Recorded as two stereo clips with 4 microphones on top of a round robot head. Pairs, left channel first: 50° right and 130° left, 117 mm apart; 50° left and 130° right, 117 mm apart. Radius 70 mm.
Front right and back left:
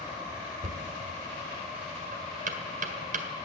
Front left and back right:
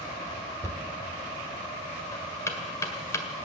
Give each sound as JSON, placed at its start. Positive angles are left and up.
{"t": 0.6, "sound": "knocking", "azimuth_deg": 120, "distance_m": 1.7}